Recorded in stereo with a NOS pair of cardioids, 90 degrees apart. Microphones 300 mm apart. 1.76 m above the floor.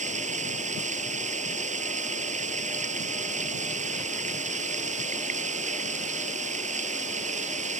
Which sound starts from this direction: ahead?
Running water, at 0.0 s.